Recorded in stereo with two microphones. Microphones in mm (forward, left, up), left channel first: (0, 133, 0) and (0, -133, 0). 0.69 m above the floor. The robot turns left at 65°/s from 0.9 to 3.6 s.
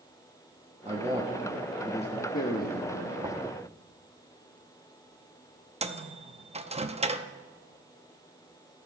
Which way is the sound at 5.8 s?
25° right (ahead or behind).